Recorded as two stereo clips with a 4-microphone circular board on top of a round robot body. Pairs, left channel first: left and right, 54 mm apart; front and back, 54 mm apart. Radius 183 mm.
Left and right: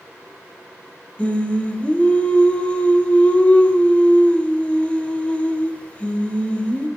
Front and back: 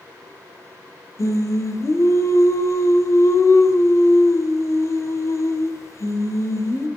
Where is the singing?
25° left, 2.0 m.